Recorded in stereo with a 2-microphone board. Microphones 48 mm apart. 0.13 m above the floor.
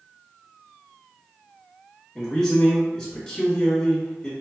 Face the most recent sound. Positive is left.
turn(degrees=20)  # may be behind; listen again after turning